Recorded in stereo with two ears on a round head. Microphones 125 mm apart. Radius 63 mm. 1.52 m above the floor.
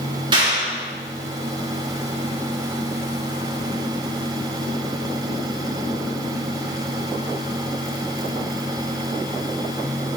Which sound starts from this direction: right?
A clap, at 0.3 s.